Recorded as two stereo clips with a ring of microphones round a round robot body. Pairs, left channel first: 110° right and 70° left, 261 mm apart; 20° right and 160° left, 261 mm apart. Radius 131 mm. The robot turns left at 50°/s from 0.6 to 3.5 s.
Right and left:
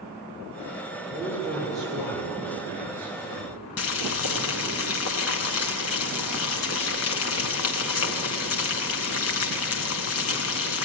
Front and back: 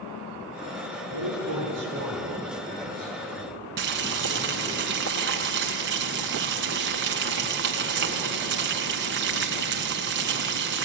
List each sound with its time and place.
1.1 s a man speaking: 145° left, 7.5 m; by 4.8 s 25° left, 7.5 m
3.8 s boiling: 155° right, 1.6 m